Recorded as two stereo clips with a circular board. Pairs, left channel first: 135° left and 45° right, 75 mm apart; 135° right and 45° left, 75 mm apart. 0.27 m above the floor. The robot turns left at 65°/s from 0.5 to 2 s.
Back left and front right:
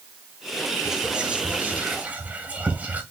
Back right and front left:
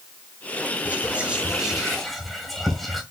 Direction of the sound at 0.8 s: 25° left.